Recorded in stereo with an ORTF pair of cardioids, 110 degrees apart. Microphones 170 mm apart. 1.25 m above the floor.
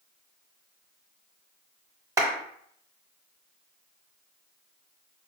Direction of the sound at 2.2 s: 20° right.